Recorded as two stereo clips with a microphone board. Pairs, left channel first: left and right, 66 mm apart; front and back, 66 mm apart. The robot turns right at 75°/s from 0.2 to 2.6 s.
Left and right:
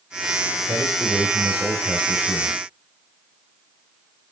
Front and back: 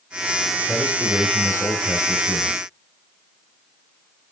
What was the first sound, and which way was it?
A man speaking, 85° right.